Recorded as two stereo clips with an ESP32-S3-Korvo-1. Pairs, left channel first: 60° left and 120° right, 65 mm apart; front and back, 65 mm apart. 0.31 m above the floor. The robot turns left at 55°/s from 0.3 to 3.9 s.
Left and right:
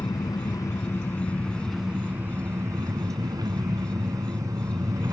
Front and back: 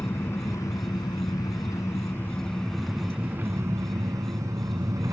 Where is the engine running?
50° left, 1.4 m; by 5.1 s 150° right, 1.4 m.